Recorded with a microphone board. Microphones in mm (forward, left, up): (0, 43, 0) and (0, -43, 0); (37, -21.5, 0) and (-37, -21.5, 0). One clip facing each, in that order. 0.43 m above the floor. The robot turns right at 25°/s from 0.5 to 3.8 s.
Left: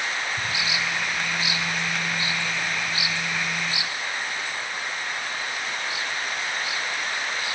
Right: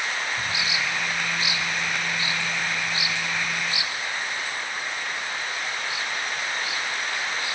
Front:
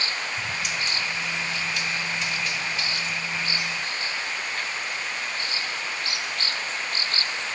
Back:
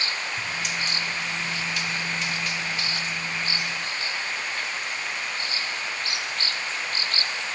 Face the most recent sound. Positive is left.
turn(degrees=-145)